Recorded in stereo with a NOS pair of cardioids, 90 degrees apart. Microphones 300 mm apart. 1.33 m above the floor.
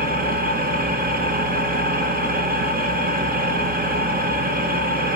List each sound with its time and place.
0.0 s an engine running: 30° right, 1.4 m